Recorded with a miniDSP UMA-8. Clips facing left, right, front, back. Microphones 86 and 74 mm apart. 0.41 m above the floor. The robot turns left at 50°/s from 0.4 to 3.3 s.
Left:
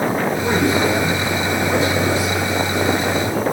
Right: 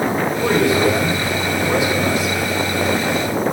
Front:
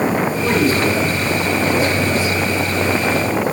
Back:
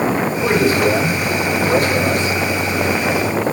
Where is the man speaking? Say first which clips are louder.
Right 3 dB, back 3 dB; 100° right, 8.5 m; by 3.4 s 115° left, 8.5 m.